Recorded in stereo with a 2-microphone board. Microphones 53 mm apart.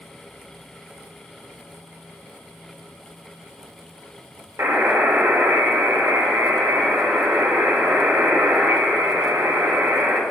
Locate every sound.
4.6 s a buzzer: 55° right (ahead or behind), 2.5 m